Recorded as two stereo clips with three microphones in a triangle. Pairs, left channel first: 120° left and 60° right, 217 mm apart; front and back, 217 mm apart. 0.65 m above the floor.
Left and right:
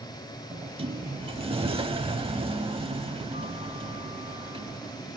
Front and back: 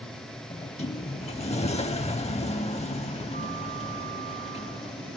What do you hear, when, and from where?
0.5 s a sliding door: 20° right, 0.5 m